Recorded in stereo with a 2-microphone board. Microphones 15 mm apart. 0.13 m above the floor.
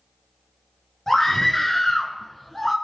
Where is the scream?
25° left (ahead or behind), 1.9 m; by 2.8 s 20° left (ahead or behind), 1.5 m.